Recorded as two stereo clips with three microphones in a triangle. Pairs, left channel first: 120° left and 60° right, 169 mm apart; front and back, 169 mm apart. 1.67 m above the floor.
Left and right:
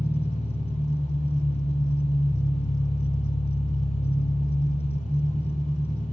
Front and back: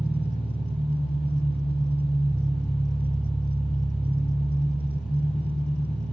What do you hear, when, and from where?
0.0 s an engine running: 80° left, 3 m